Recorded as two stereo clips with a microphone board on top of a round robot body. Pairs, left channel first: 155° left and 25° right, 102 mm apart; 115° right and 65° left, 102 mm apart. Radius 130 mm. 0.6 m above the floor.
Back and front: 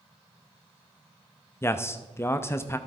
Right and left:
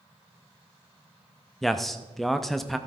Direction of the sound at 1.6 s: 160° left.